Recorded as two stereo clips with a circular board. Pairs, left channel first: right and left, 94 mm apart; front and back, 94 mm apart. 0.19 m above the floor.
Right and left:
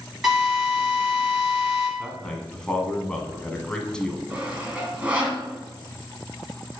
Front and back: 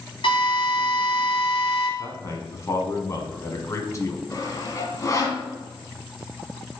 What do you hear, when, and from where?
0.2 s a drill: straight ahead, 3.5 m
2.0 s a man speaking: 15° right, 1.3 m
4.3 s sawing: 25° left, 1.7 m